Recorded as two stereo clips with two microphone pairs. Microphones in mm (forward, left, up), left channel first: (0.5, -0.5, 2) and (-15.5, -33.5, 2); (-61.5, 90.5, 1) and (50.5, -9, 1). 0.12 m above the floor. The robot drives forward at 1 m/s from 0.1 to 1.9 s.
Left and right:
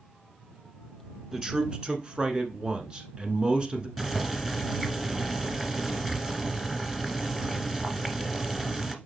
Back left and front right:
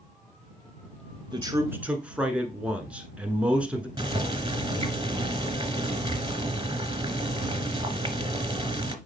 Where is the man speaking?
50° right, 1.2 m; by 3.9 s 115° right, 1.1 m.